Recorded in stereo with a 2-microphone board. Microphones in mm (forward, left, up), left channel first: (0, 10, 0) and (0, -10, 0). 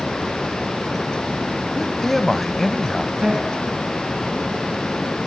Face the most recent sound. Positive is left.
turn(degrees=-40)  # may be behind; listen again after turning